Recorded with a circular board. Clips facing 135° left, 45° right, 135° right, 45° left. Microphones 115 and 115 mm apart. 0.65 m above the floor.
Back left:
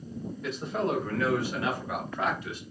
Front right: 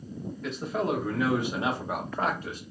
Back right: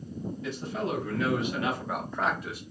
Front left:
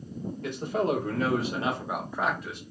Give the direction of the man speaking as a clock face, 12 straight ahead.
10 o'clock.